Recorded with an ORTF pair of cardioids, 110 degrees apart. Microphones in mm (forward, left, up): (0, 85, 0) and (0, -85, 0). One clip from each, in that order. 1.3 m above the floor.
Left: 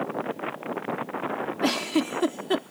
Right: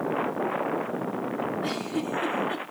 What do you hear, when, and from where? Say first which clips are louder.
1.6 s a giggle: left 4 dB; 65° left, 0.7 m